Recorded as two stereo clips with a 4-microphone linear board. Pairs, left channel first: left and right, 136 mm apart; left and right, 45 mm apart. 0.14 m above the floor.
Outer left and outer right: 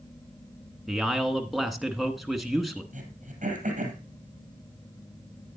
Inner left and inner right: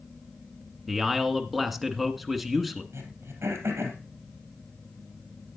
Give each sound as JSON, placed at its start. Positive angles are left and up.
{"t": 0.9, "sound": "a man speaking", "side_deg": 0, "distance_m": 1.3}
{"t": 2.9, "sound": "throat clearing", "side_deg": -70, "distance_m": 3.0}